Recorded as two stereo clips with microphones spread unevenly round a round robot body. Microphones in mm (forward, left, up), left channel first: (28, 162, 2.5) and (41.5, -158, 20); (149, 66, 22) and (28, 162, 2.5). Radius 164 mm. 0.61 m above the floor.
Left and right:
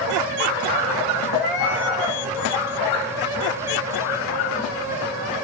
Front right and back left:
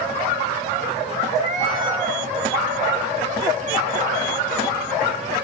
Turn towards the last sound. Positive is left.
turn(degrees=100)